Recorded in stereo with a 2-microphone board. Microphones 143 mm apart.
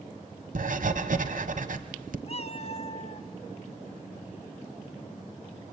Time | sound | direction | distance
0.6 | writing | 70° right (ahead or behind) | 1.1 m
2.3 | a cat meowing | 45° left (ahead or behind) | 0.6 m